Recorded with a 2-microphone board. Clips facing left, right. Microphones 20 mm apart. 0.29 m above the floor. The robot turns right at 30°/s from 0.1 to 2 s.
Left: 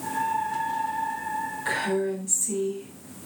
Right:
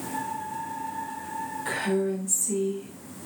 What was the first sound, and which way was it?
A woman speaking, 10° left (ahead or behind).